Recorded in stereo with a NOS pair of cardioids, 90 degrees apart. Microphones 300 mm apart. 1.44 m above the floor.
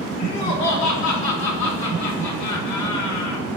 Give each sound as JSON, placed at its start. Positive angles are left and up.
{"t": 0.2, "sound": "laughter", "azimuth_deg": 70, "distance_m": 3.5}